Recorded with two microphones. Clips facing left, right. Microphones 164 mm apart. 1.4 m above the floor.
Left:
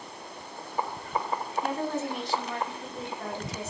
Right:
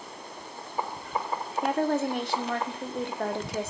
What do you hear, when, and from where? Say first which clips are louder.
1.6 s a woman speaking: right 8 dB; 65° right (ahead or behind), 0.9 m